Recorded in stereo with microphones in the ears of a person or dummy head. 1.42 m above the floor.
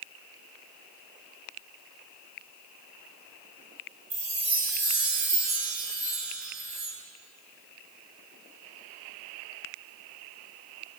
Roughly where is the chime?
Centre.